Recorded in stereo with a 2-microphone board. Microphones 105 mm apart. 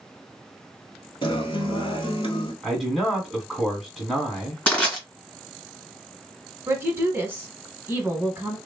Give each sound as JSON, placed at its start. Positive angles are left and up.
{"t": 1.2, "sound": "a guitar", "side_deg": 55, "distance_m": 1.1}
{"t": 2.6, "sound": "a man speaking", "side_deg": 0, "distance_m": 1.5}
{"t": 4.7, "sound": "crushing", "side_deg": 15, "distance_m": 1.9}
{"t": 6.7, "sound": "a woman speaking", "side_deg": -25, "distance_m": 1.1}